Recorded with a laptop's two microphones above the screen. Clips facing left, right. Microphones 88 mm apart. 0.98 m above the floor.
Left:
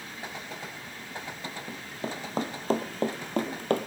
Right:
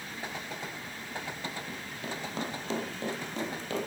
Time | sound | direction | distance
1.7 | running footsteps | 30° left (ahead or behind) | 2.0 m